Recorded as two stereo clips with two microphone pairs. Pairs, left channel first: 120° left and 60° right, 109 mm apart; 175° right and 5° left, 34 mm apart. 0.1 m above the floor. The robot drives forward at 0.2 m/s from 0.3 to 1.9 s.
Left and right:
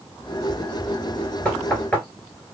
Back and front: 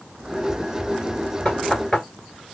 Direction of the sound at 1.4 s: 175° right.